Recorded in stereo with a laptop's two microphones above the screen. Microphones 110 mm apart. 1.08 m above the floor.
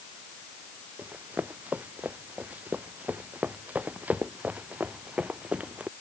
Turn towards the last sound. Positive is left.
turn(degrees=-10)  # may be behind; listen again after turning